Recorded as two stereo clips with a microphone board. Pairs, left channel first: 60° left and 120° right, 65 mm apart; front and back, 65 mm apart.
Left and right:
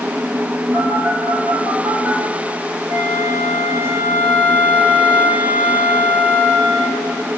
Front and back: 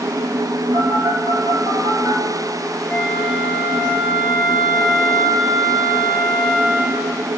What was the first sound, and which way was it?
A phone buzzing, 175° right.